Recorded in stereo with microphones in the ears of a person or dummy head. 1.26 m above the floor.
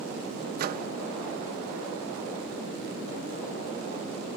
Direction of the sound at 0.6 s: 50° right (ahead or behind).